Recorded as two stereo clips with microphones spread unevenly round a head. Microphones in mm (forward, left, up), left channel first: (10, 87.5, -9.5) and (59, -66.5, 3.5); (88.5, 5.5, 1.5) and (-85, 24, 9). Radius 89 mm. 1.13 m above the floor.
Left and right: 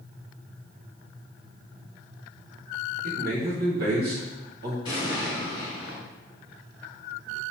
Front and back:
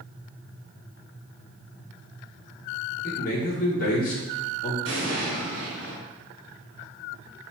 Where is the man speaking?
45° right, 1.2 m.